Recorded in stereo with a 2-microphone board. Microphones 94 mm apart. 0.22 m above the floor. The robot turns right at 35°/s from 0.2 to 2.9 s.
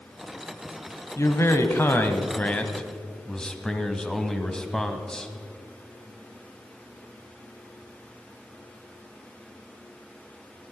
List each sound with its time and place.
1.2 s a man speaking: 105° left, 1.2 m; by 5.3 s 165° left, 1.2 m